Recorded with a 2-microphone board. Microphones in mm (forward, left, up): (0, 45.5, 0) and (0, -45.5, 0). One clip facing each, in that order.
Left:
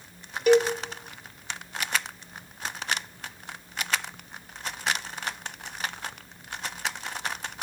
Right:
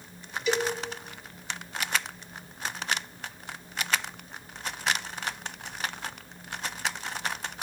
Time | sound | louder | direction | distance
0.5 | a cowbell | left 8 dB | 50° left (ahead or behind) | 1.3 m